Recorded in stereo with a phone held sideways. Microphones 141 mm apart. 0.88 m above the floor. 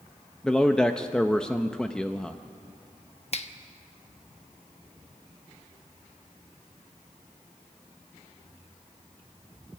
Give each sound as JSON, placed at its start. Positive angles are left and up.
{"t": 0.4, "sound": "a man speaking", "side_deg": 5, "distance_m": 0.6}
{"t": 3.3, "sound": "a finger snap", "side_deg": 50, "distance_m": 0.9}